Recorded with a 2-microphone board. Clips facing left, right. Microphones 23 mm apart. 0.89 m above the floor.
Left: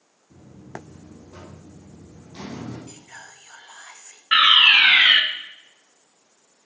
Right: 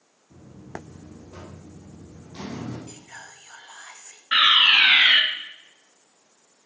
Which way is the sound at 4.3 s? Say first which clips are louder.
Left 3 dB; 40° left (ahead or behind).